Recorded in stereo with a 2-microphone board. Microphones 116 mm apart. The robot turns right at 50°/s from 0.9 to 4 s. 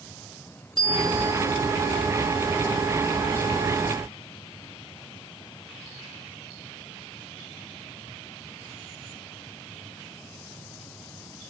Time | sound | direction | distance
0.8 | a bicycle bell | 45° left (ahead or behind) | 3 m